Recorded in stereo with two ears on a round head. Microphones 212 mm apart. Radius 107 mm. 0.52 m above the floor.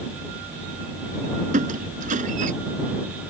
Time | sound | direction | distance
1.5 | a squeak | 35° right (ahead or behind) | ?